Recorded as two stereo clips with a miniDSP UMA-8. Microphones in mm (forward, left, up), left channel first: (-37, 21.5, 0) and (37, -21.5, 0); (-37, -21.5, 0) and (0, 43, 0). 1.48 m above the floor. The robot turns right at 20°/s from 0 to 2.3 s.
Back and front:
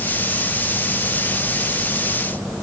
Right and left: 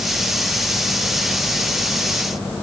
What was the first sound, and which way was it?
Only background noise.